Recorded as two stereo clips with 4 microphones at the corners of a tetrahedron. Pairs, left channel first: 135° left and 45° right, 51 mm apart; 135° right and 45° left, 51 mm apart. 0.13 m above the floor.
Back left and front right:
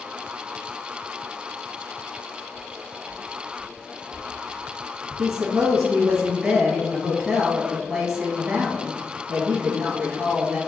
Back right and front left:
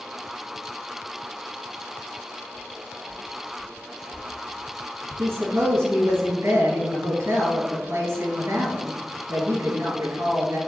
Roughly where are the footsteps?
Behind left.